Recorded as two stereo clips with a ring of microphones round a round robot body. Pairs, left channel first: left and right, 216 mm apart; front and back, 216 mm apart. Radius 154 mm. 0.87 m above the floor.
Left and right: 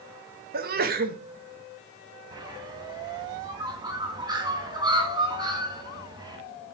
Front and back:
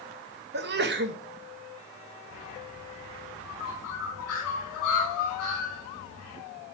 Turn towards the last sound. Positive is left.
turn(degrees=-20)